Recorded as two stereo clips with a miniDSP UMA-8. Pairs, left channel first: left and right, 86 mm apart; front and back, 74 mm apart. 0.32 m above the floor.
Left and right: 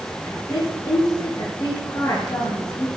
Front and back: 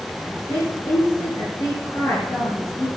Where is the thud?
I don't hear a thud.